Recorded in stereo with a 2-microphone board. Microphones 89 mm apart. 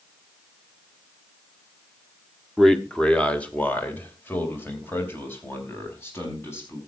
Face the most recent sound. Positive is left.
turn(degrees=30)  # may be behind; listen again after turning